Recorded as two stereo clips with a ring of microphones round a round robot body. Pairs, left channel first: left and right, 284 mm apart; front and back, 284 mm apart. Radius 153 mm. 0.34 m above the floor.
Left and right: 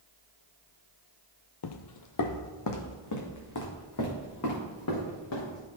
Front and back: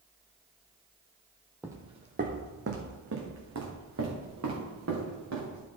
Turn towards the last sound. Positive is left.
turn(degrees=135)